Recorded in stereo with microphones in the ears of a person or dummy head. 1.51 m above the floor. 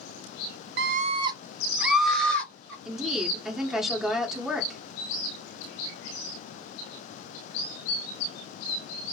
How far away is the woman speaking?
About 1.6 m.